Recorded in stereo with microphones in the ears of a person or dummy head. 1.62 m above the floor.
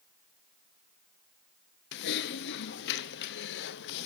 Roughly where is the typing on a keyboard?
Left.